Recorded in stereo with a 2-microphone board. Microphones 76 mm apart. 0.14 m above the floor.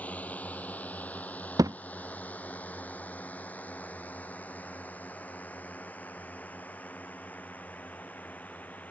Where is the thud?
50° right (ahead or behind).